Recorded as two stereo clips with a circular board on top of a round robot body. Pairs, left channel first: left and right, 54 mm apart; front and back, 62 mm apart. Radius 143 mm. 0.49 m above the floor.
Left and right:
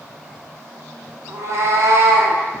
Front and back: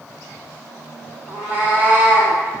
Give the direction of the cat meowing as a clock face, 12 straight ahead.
4 o'clock.